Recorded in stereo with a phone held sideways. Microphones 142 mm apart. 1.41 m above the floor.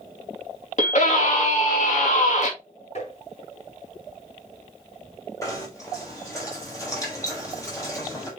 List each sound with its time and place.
0.8 s a scream: 60° left (ahead or behind), 2.5 m
3.0 s tapping: 55° left (ahead or behind), 5 m
5.4 s knocking: 25° left (ahead or behind), 4 m